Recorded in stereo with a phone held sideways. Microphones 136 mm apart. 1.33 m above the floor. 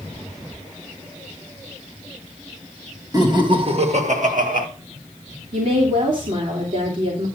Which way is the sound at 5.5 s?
70° right (ahead or behind).